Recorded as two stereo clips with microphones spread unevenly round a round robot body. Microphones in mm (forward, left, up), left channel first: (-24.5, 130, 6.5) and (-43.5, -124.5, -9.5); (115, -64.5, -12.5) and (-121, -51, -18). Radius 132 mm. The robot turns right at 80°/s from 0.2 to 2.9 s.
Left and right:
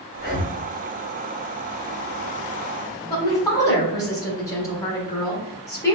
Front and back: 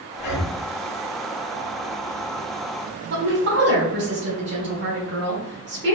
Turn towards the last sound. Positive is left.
turn(degrees=165)